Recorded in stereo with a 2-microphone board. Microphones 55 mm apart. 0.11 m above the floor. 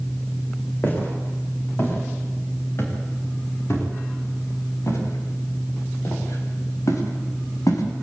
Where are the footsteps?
40° left (ahead or behind), 9.5 m; by 7.8 s 75° left (ahead or behind), 7 m.